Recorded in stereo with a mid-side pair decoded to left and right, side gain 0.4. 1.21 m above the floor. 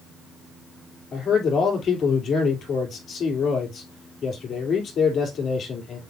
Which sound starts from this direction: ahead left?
A man speaking, at 1.1 s.